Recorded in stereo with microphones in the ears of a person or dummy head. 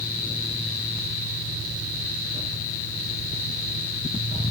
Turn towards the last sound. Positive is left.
No sound to turn to.